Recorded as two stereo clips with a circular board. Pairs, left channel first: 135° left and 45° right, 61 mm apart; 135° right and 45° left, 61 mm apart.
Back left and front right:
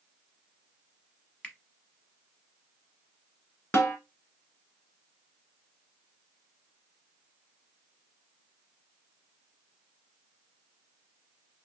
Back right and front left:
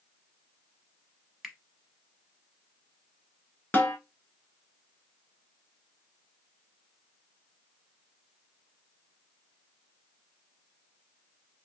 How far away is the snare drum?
About 1.0 m.